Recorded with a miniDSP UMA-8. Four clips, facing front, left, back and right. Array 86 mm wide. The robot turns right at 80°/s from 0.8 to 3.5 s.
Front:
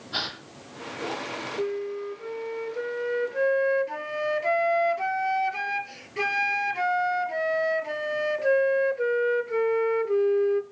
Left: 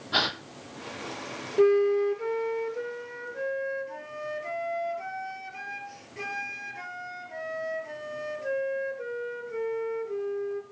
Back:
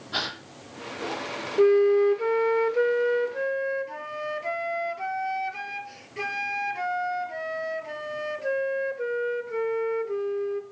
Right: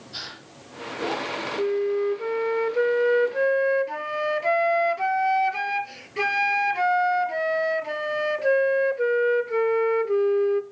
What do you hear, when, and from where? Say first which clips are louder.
0.1 s a gasp: left 14 dB, back 2 dB; 100° left, 1.3 m
1.6 s a flute: left 3 dB, back 13 dB; 140° left, 0.7 m; by 10.6 s 70° right, 0.7 m